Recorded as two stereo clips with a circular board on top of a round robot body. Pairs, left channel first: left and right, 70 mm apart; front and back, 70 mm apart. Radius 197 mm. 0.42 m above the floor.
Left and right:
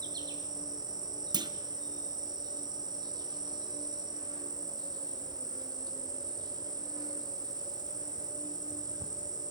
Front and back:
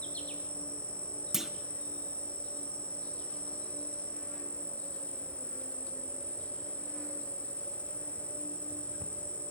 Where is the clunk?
95° right, 0.8 m.